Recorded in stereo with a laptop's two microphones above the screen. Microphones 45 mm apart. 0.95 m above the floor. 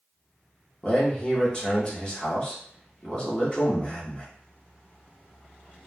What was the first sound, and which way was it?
A man speaking, 25° left (ahead or behind).